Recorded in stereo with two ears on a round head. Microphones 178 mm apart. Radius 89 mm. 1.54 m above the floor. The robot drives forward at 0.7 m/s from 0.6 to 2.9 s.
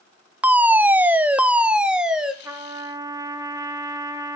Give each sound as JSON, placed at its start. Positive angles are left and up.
{"t": 0.4, "sound": "a fire alarm", "side_deg": -5, "distance_m": 0.5}
{"t": 2.4, "sound": "a trumpet", "side_deg": -15, "distance_m": 1.4}